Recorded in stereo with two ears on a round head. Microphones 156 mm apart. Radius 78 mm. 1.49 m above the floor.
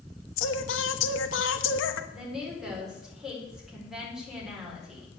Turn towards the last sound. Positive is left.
turn(degrees=0)  # may be behind; listen again after turning